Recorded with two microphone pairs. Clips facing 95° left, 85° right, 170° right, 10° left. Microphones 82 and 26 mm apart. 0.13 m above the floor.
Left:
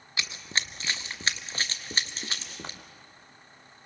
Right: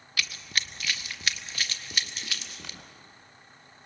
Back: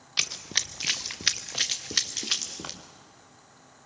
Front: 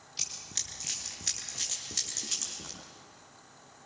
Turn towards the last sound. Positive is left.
turn(degrees=150)